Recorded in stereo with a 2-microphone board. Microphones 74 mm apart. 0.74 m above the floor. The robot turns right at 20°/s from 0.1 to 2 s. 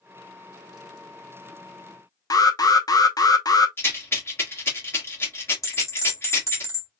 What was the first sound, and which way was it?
An alarm, 55° left (ahead or behind).